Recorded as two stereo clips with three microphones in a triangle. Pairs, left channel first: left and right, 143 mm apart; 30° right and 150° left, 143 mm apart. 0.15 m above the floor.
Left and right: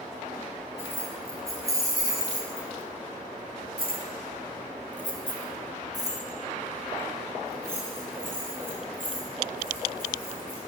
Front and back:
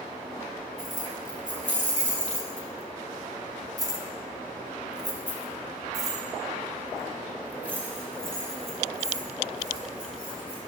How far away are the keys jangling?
About 2.5 m.